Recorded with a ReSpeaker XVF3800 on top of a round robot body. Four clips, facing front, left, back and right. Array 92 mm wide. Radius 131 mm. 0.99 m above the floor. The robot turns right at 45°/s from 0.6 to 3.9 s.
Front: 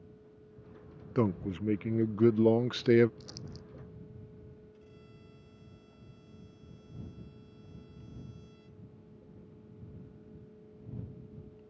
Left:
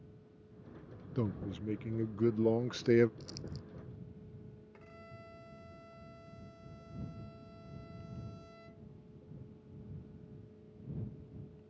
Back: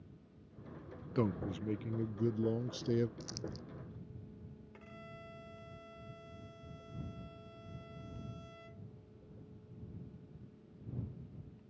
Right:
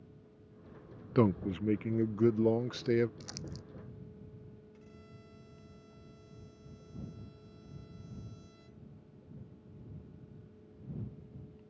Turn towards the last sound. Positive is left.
turn(degrees=140)